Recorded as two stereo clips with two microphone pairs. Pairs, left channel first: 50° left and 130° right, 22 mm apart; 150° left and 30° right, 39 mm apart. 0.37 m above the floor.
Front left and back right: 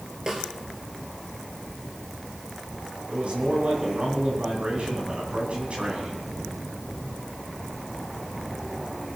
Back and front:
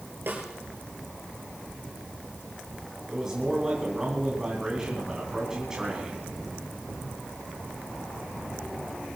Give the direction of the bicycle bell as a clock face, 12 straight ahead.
I don't hear a bicycle bell.